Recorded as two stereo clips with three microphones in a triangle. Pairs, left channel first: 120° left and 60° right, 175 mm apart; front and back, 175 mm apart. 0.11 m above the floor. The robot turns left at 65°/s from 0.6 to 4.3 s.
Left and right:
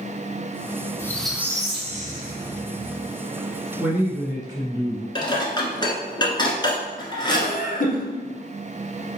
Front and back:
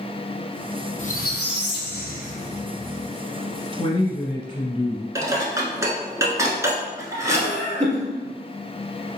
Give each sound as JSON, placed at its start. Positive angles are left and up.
{"t": 1.0, "sound": "a squeak", "azimuth_deg": 50, "distance_m": 0.7}
{"t": 3.8, "sound": "a man speaking", "azimuth_deg": 15, "distance_m": 1.7}
{"t": 5.2, "sound": "dishes clattering", "azimuth_deg": 135, "distance_m": 1.1}
{"t": 7.3, "sound": "laughter", "azimuth_deg": 145, "distance_m": 2.0}